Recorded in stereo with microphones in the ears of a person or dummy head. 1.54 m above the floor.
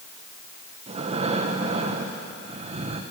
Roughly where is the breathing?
Right.